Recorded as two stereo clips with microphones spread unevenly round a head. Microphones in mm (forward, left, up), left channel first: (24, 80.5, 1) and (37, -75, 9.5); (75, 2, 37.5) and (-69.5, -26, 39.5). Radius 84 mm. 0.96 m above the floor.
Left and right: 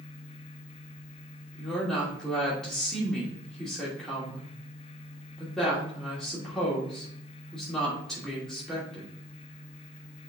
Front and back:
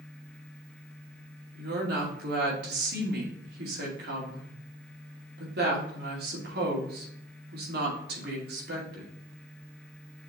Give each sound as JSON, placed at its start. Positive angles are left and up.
{"t": 1.6, "sound": "a woman speaking", "azimuth_deg": 180, "distance_m": 2.5}